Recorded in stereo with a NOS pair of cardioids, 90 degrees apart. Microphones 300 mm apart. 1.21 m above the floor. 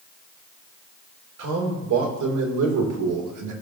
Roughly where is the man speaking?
Ahead right.